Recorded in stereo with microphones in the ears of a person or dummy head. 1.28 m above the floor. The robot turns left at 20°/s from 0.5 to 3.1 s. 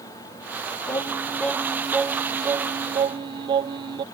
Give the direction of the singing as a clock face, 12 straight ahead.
12 o'clock.